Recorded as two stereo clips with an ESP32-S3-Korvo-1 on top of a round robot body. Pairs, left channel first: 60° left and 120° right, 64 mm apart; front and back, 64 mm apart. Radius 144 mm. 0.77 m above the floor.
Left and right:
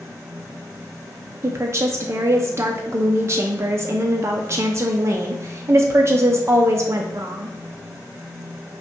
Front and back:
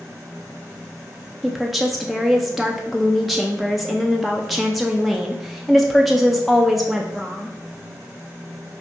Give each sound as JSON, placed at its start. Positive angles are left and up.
{"t": 1.4, "sound": "a woman speaking", "azimuth_deg": -90, "distance_m": 0.5}